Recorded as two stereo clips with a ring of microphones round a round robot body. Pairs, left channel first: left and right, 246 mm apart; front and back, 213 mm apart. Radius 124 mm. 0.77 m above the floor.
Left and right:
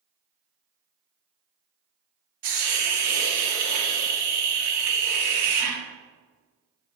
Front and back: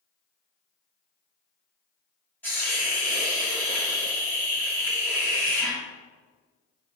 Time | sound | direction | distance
2.4 | a hiss | 85° right | 1.3 m